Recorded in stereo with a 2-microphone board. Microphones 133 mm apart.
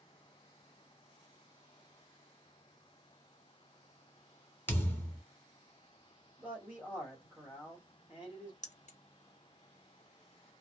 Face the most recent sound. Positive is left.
turn(degrees=65)  # may be behind; listen again after turning